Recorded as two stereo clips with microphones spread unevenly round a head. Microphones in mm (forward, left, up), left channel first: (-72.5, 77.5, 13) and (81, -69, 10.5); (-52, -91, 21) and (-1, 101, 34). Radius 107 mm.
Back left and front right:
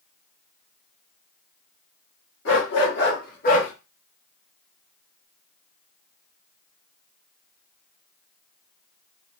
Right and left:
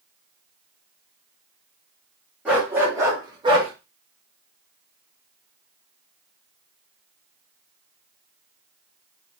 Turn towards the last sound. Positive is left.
turn(degrees=105)